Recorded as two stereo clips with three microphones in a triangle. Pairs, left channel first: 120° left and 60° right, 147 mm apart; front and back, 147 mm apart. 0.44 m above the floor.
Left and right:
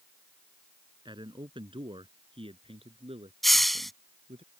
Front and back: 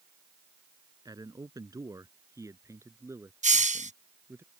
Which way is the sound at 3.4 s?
150° right.